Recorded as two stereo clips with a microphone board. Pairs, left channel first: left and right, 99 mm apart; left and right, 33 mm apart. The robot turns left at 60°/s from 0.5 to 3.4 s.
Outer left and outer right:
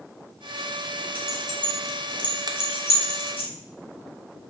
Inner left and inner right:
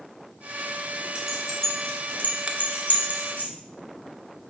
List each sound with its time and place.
1.1 s keys jangling: 15° right (ahead or behind), 1.5 m; by 3.5 s 60° left (ahead or behind), 1.5 m
2.5 s a finger snap: 45° right (ahead or behind), 0.7 m; by 2.6 s 50° right (ahead or behind), 0.7 m